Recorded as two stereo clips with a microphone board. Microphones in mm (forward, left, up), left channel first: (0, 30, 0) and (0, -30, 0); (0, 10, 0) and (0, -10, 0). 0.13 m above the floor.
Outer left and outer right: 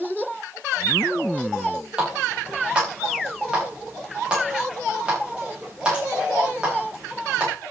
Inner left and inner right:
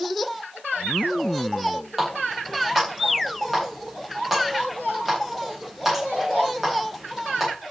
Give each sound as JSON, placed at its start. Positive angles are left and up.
{"t": 2.0, "sound": "a running tap", "side_deg": -15, "distance_m": 7.5}